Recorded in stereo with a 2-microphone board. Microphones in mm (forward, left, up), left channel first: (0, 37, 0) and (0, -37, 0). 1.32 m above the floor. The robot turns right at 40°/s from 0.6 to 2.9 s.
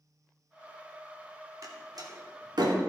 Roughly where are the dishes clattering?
No dishes clattering in this recording.